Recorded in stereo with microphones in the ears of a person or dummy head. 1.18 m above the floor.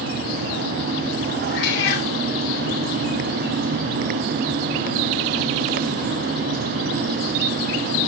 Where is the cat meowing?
65° left (ahead or behind), 2.5 m.